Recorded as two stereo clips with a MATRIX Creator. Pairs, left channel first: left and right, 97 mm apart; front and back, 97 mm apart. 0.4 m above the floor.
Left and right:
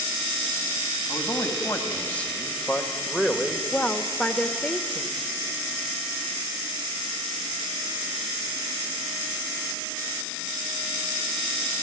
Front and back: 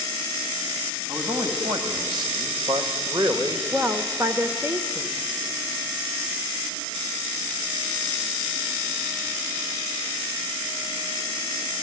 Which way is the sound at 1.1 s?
155° left.